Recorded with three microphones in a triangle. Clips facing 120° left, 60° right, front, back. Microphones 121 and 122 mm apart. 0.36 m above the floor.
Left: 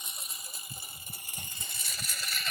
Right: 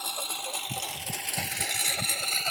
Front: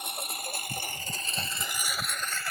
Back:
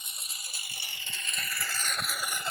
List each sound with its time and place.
0.0 s a lawn mower: 30° right; by 2.5 s 110° right